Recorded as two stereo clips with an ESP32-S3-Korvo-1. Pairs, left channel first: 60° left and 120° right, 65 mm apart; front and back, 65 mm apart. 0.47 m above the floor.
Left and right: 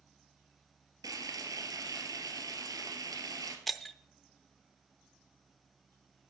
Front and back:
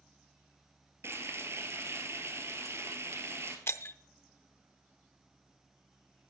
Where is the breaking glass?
30° right, 0.6 m.